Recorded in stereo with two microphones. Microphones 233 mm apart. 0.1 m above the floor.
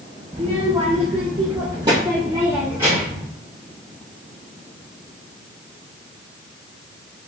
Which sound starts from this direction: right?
A child speaking, at 0.3 s.